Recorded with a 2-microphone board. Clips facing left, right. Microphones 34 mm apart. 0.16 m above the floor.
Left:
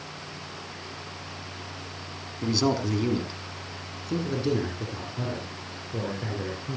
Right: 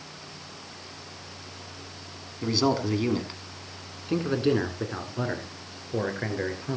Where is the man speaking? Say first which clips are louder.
Right 1 dB; 10° right (ahead or behind), 1.7 m; by 6.8 s 55° right (ahead or behind), 3.5 m.